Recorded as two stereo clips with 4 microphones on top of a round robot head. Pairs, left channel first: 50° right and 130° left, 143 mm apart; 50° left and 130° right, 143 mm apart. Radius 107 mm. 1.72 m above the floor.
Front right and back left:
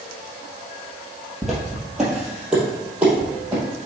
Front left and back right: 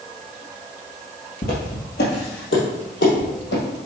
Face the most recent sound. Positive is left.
turn(degrees=55)